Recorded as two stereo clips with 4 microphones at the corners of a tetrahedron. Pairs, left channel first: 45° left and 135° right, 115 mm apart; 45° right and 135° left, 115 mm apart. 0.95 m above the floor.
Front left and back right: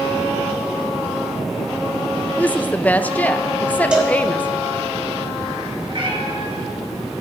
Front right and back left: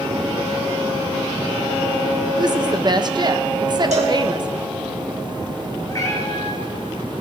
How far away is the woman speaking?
About 0.5 m.